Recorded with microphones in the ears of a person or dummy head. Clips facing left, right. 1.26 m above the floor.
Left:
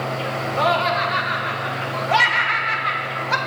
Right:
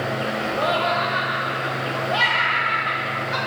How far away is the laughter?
About 1.2 m.